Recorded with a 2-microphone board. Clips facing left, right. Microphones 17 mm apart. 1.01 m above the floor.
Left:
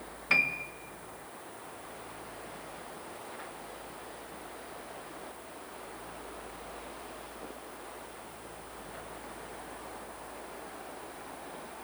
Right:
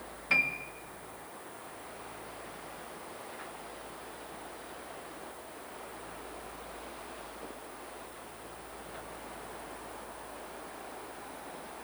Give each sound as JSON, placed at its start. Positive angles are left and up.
{"t": 0.3, "sound": "a piano", "side_deg": 15, "distance_m": 0.5}